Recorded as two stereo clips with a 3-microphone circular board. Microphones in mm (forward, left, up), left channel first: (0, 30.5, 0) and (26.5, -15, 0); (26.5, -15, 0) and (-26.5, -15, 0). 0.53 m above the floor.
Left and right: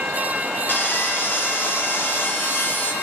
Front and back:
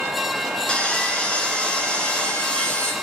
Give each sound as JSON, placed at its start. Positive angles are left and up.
{"t": 0.7, "sound": "sawing", "azimuth_deg": 70, "distance_m": 3.0}